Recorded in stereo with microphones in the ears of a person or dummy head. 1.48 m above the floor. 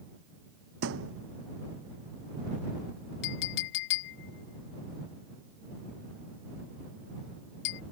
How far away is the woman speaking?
No woman speaking in this recording.